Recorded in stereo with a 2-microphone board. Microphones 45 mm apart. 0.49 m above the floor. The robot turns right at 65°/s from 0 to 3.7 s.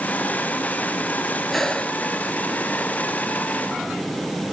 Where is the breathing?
Straight ahead; by 2.0 s 35° left.